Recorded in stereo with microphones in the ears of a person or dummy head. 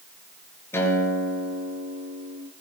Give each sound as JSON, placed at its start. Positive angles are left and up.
{"t": 0.7, "sound": "a guitar", "side_deg": 15, "distance_m": 6.5}